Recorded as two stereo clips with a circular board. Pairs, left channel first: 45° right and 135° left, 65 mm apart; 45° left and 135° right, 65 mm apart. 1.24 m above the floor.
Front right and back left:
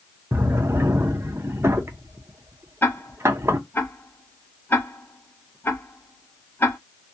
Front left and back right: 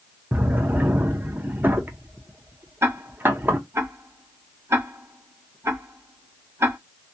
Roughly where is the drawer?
Behind.